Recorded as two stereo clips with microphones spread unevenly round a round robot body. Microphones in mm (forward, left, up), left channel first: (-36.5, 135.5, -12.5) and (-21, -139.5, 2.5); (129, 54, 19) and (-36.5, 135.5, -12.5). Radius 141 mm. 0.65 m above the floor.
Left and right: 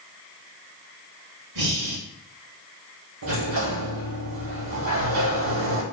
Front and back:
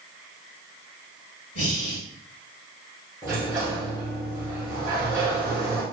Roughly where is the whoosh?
No whoosh in this recording.